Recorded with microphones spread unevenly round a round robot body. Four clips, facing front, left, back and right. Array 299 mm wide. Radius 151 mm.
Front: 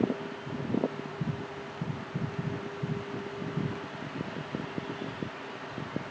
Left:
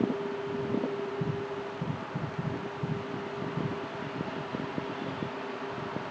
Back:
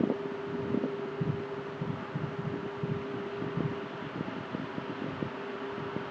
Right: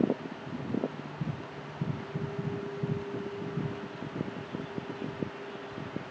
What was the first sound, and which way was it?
Only background noise.